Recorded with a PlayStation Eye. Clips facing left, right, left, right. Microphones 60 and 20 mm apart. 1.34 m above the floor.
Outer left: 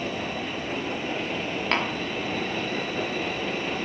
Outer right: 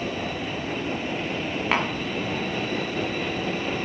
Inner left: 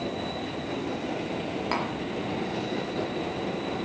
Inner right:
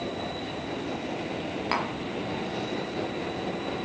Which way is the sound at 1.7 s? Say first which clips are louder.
Outer right 2 dB, inner right 1 dB; 10° right (ahead or behind).